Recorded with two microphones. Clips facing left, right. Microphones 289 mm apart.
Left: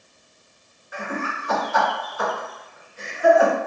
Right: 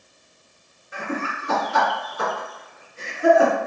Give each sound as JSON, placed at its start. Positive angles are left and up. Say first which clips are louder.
{"t": 0.9, "sound": "laughter", "louder": "right 1 dB", "side_deg": -30, "distance_m": 1.8}